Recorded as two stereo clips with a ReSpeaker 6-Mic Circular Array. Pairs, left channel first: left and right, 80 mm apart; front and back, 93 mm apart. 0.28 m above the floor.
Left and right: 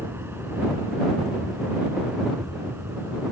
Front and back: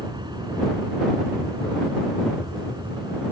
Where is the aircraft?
150° right.